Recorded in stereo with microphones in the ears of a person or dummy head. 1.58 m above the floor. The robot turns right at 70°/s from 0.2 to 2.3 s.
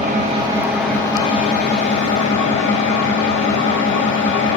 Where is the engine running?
45° right, 1.0 m; by 4.6 s 105° left, 1.0 m.